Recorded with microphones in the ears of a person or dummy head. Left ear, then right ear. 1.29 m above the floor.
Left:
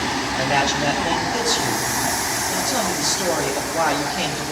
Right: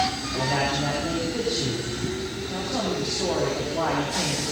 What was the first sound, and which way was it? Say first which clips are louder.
A man speaking: left 5 dB; 80° left.